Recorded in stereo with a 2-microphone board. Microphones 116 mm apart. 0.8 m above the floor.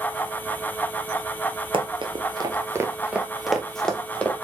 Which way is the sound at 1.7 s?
55° right (ahead or behind).